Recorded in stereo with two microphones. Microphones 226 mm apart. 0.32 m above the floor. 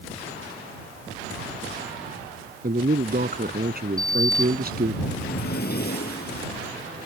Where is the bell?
No bell in this recording.